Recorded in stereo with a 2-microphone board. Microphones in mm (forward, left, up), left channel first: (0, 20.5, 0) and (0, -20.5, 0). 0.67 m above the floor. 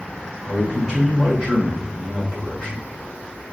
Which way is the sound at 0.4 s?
20° left (ahead or behind).